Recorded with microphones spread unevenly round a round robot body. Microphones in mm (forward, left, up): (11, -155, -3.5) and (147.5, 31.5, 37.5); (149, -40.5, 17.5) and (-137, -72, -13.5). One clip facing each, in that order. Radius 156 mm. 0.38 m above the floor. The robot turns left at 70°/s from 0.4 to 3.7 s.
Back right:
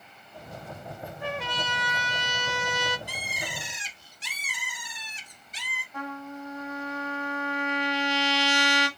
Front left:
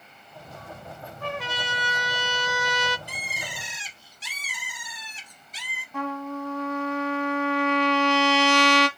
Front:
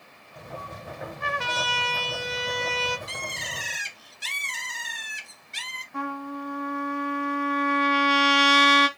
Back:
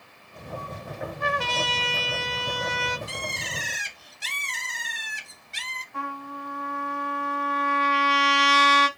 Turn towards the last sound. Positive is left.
turn(degrees=30)